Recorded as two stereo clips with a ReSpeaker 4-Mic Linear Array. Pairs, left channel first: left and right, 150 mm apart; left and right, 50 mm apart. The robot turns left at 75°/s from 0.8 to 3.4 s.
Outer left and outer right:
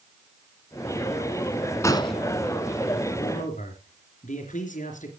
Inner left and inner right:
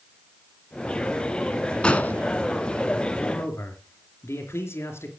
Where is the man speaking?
50° left (ahead or behind), 3 m; by 5.1 s 65° left (ahead or behind), 3 m.